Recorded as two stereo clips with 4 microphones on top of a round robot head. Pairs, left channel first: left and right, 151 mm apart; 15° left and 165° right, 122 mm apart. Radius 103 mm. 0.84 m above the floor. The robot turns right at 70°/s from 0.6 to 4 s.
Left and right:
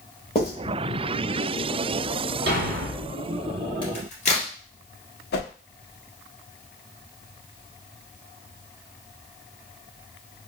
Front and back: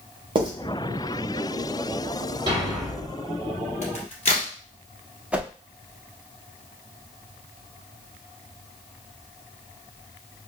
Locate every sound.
0.3 s writing: 150° left, 1.4 m
2.5 s a thud: 105° right, 1.3 m; by 3.2 s 55° right, 1.3 m
3.8 s a crack: 35° left, 2.5 m; by 4.5 s 50° left, 2.5 m
5.3 s a whoosh: 115° left, 0.7 m